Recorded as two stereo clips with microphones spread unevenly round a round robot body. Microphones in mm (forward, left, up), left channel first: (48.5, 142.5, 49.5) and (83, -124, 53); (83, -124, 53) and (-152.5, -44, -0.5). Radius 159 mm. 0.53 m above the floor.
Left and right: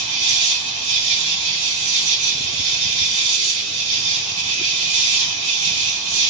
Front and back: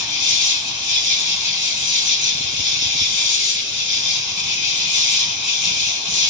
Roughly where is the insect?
Right.